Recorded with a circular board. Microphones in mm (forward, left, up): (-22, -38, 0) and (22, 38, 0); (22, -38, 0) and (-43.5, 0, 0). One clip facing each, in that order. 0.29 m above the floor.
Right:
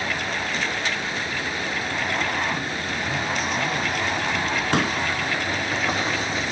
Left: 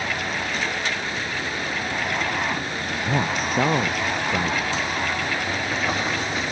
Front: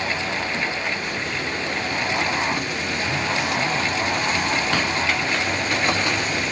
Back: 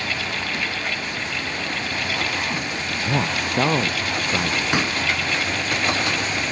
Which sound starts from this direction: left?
A man speaking, at 3.0 s.